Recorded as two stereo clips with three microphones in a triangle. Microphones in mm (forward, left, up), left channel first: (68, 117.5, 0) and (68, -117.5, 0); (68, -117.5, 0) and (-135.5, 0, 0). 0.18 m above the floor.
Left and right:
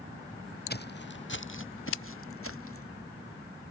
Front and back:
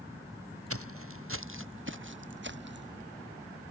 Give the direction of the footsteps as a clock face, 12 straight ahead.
7 o'clock.